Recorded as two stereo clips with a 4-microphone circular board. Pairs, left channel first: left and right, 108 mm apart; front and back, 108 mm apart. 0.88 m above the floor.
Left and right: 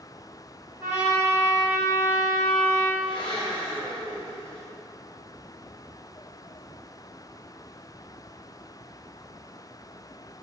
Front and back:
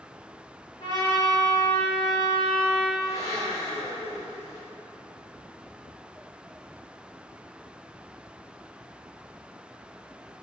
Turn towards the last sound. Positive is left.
turn(degrees=50)